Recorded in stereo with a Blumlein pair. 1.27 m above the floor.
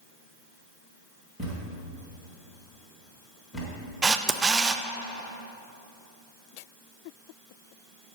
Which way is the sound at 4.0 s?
15° right.